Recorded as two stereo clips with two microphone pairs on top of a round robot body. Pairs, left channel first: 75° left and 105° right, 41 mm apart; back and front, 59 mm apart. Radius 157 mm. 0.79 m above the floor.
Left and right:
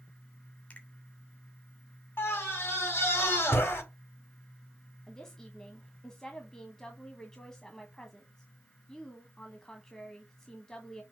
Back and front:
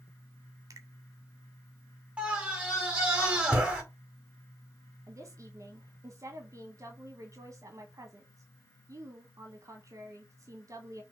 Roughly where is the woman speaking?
Ahead.